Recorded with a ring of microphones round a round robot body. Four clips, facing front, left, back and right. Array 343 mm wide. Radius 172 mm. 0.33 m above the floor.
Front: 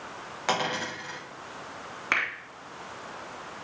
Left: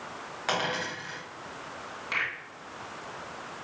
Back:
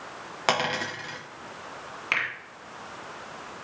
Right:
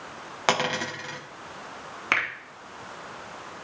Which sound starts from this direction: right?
A finger snap, at 2.1 s.